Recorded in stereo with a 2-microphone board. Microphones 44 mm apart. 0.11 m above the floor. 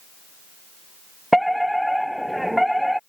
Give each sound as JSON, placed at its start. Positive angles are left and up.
{"t": 1.3, "sound": "a fire alarm", "side_deg": -5}